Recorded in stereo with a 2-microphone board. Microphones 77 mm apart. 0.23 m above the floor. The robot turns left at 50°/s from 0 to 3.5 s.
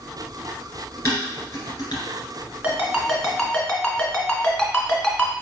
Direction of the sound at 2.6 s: 30° right (ahead or behind).